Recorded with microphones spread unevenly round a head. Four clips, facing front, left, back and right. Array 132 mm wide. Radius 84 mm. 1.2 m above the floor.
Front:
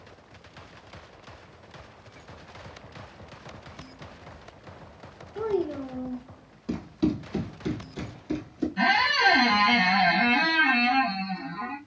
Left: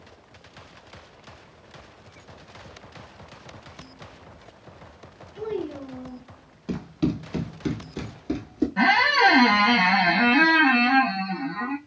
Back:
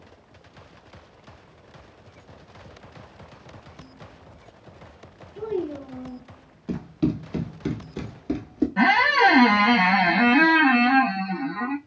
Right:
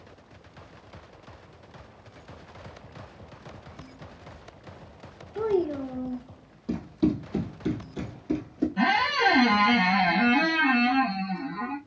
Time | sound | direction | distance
5.3 | a child speaking | 45° right | 0.8 m
6.7 | running footsteps | 45° left | 2 m
8.8 | a squeak | 105° left | 0.6 m